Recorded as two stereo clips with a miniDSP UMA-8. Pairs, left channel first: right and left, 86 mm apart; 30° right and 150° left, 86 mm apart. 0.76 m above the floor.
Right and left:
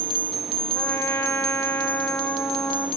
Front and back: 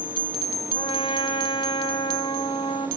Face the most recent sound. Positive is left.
turn(degrees=-30)